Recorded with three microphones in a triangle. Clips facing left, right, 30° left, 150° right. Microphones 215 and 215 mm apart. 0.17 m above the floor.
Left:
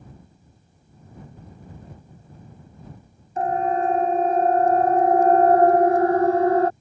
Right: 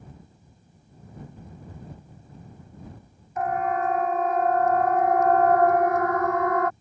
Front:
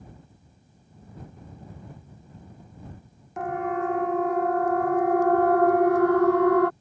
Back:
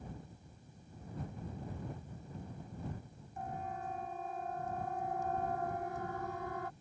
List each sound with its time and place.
3.4 s a siren: 30° left; by 6.7 s 35° left